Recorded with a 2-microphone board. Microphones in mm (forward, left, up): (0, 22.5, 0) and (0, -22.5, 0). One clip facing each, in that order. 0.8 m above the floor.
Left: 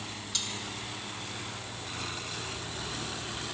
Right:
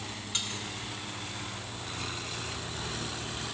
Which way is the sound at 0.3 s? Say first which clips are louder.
Right 2 dB; 35° right (ahead or behind).